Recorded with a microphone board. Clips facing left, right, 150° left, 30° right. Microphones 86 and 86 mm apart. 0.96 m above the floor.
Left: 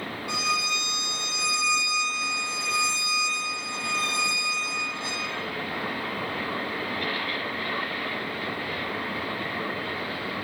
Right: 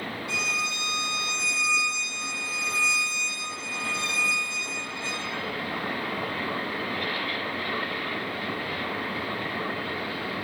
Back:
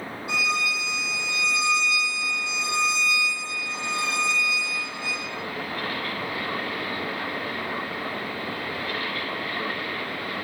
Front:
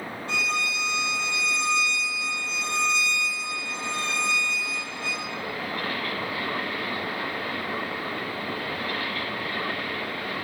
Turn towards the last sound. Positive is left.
turn(degrees=75)